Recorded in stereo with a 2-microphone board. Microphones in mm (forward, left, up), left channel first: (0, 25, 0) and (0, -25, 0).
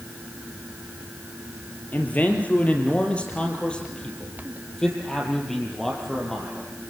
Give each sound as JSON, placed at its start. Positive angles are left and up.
{"t": 1.9, "sound": "a man speaking", "side_deg": 35, "distance_m": 4.5}